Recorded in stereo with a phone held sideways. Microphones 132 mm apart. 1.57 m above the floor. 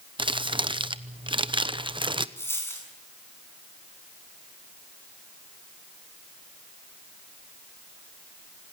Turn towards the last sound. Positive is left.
turn(degrees=15)  # may be behind; listen again after turning